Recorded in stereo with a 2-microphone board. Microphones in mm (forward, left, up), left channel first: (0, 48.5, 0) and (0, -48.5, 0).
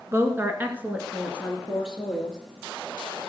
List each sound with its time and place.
0.1 s a woman speaking: 30° right (ahead or behind), 1.6 m; by 2.4 s centre (ahead or behind), 3 m